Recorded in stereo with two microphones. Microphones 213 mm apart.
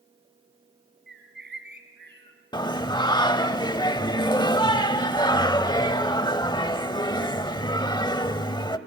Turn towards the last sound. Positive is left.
turn(degrees=20)  # may be behind; listen again after turning